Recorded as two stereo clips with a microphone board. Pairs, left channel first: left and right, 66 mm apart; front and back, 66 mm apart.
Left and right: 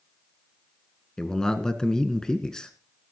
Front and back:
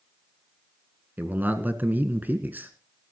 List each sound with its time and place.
1.2 s a man speaking: 160° left, 1.4 m